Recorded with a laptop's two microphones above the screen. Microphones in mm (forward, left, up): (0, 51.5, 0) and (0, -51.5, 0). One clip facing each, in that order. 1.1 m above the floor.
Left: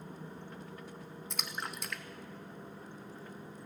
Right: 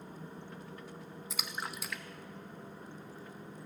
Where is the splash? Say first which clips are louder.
Even; 5° right (ahead or behind), 0.5 m.